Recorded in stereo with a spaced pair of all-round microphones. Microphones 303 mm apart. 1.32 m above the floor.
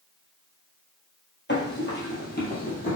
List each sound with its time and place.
1.5 s running footsteps: 35° left (ahead or behind), 2.5 m; by 3.0 s 30° left (ahead or behind), 3 m